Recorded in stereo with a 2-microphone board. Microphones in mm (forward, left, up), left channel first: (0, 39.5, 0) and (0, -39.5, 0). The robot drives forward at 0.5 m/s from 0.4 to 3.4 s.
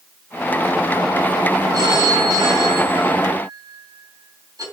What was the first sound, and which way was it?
A phone ringing, 70° right (ahead or behind).